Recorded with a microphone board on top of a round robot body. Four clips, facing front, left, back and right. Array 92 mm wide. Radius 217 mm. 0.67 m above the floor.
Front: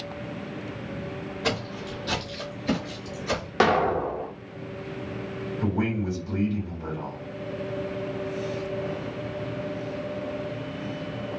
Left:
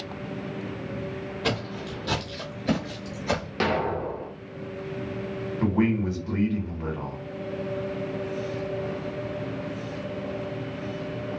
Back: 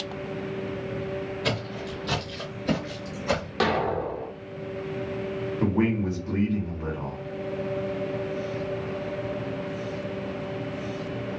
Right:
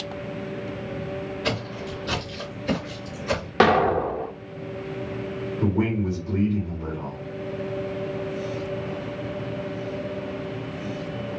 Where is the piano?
No piano in this recording.